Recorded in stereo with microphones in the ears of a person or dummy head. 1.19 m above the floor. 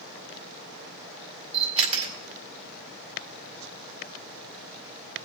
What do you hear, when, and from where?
1.5 s a camera shutter: 40° right (ahead or behind), 3.5 m